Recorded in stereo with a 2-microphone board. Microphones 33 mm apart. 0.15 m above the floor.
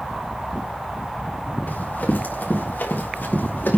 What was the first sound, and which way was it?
Running footsteps, 65° left (ahead or behind).